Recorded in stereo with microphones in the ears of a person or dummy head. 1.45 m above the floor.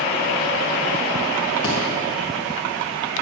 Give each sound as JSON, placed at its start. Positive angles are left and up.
{"t": 1.6, "sound": "a thud", "side_deg": 35, "distance_m": 2.5}